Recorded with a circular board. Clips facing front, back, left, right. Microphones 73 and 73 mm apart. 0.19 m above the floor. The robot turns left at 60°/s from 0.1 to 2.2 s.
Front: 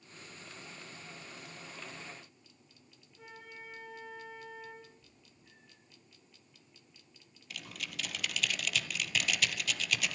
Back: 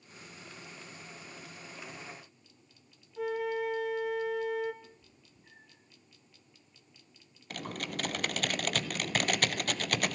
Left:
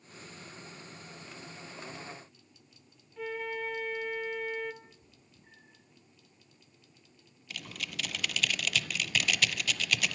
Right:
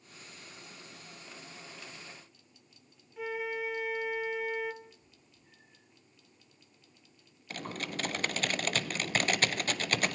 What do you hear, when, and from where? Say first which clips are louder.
3.2 s a flute: back 19 dB, right 1 dB; 175° right, 1.4 m
4.8 s a cat meowing: back 2 dB, right 1 dB; 135° left, 10 m
7.5 s typing on a keyboard: back 7 dB, right 4 dB; 140° right, 1.0 m